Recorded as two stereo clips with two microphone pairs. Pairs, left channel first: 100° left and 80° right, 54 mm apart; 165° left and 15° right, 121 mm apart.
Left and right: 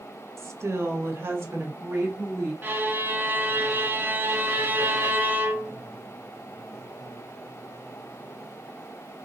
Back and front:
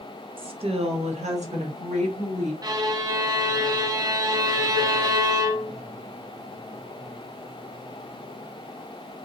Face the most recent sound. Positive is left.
turn(degrees=-50)